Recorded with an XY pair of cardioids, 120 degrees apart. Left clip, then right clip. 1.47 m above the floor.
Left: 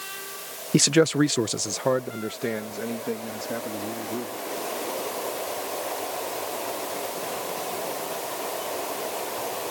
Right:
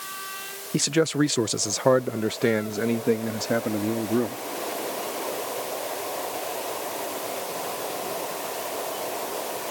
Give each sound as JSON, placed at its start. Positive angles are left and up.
{"t": 0.7, "sound": "a man speaking", "azimuth_deg": 35}